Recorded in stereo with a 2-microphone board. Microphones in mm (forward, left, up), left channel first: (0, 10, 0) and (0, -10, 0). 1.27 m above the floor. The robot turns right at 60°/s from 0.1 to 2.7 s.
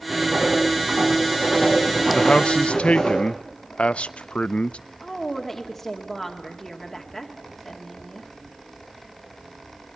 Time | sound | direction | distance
0.1 | writing | 140° right | 8 m
2.1 | a man speaking | 50° left | 0.6 m
5.0 | a woman speaking | 5° left (ahead or behind) | 2 m